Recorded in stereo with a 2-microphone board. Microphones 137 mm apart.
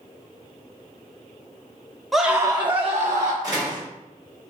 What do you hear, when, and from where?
2.1 s a scream: centre (ahead or behind), 0.6 m; by 3.3 s 55° right (ahead or behind), 1.1 m
3.4 s a door slam: 25° right (ahead or behind), 1.9 m